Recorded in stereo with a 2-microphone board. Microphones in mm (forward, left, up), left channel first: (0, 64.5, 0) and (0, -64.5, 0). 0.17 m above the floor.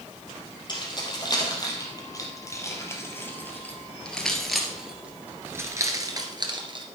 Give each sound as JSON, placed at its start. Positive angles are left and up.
{"t": 0.7, "sound": "keys jangling", "side_deg": 35, "distance_m": 4.0}